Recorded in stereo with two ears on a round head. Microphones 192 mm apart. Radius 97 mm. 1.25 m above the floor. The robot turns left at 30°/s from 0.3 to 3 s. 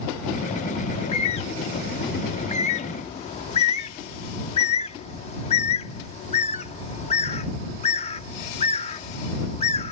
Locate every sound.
0.9 s a bird: 25° left (ahead or behind)